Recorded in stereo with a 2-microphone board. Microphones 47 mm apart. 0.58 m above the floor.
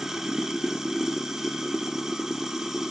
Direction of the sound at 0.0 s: 10° right (ahead or behind).